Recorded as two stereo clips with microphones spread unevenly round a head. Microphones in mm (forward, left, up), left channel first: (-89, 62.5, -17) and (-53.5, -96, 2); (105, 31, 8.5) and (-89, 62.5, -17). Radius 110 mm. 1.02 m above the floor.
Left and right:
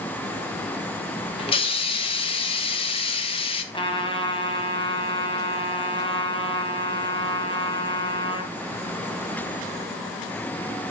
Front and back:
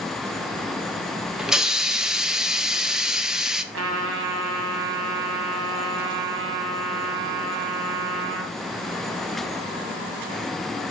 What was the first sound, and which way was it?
A hiss, 95° left.